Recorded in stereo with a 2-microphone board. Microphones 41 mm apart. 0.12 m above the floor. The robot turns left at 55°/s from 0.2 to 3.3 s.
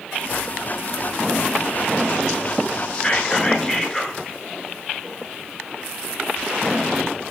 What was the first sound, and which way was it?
Whispering, 30° left (ahead or behind).